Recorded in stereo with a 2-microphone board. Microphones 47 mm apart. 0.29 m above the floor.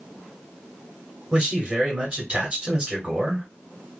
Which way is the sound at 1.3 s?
20° right (ahead or behind).